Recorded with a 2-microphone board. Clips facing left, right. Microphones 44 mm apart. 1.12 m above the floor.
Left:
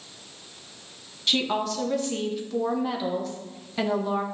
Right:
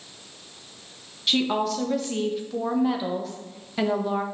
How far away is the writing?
I don't hear writing.